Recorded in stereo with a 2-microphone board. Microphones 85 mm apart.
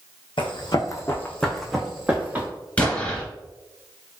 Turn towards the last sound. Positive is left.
turn(degrees=15)  # may be behind; listen again after turning